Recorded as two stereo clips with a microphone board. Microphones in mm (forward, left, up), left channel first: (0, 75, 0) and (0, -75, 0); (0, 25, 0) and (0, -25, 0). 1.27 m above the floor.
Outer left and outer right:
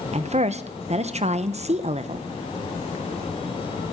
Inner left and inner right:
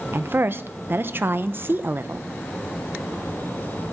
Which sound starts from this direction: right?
A woman speaking, at 0.1 s.